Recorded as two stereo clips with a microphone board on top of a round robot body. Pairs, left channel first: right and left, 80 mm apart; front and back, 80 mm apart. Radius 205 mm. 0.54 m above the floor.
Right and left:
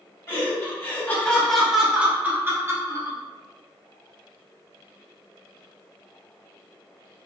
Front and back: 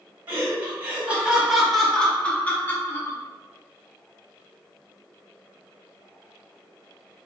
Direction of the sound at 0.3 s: 130° right.